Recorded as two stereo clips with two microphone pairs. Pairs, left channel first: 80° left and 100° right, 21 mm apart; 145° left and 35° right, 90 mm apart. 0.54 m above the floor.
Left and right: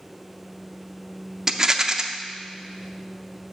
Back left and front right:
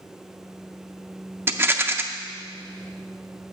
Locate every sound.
1.5 s a rattle: 55° right, 0.5 m